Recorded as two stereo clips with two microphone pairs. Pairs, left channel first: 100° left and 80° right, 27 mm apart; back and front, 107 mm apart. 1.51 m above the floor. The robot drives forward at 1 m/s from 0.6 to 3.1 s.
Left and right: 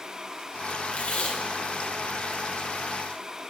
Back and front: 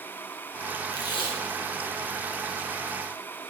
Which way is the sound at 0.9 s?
130° left.